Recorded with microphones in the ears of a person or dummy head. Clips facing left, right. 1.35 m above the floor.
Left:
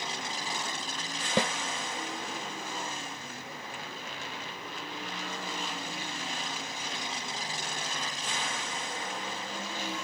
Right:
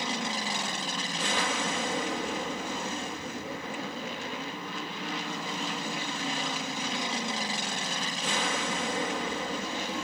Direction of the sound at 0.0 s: 50° right (ahead or behind).